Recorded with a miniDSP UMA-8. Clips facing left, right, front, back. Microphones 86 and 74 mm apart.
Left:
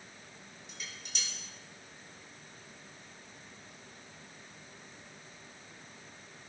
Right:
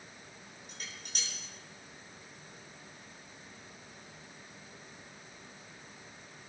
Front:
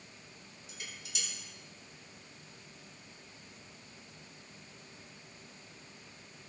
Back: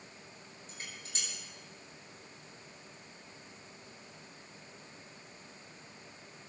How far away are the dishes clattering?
About 9 m.